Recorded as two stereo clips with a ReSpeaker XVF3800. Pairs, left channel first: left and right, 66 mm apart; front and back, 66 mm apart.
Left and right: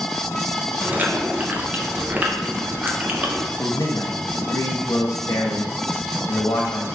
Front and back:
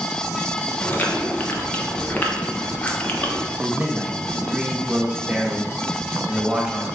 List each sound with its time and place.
0.8 s chewing: 45° right, 0.5 m
3.6 s a man speaking: 105° left, 0.8 m